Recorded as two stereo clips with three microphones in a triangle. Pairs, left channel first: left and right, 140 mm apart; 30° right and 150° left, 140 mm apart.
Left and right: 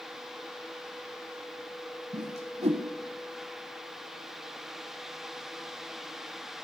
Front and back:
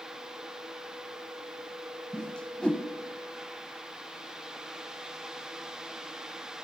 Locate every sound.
2.1 s a whoosh: 110° right, 0.9 m